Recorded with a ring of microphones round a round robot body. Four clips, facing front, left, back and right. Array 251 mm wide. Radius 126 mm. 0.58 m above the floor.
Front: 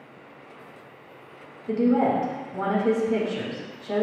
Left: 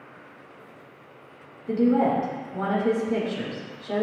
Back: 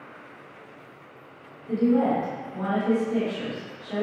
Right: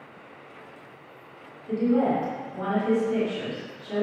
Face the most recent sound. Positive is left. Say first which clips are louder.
# left 2 dB, front 1 dB
turn(degrees=40)